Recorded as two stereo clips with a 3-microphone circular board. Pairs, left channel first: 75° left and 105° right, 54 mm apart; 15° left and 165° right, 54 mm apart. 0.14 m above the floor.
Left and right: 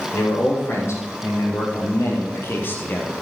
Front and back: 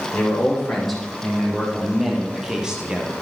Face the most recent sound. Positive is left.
turn(degrees=125)